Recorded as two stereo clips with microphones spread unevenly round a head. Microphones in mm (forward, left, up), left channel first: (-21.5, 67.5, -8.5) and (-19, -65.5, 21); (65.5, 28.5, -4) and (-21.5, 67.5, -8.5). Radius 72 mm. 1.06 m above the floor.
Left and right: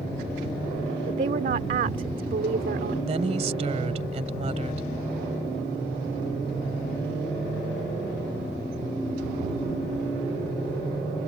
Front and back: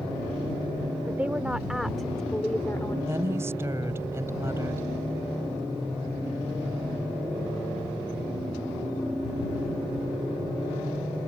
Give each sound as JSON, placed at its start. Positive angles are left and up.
{"t": 1.1, "sound": "a woman speaking", "azimuth_deg": -125}
{"t": 3.1, "sound": "a woman speaking", "azimuth_deg": -130}